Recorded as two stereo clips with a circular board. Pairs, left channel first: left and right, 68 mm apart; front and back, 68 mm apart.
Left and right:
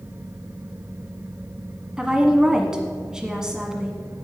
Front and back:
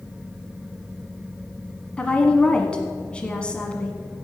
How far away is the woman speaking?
About 1.3 m.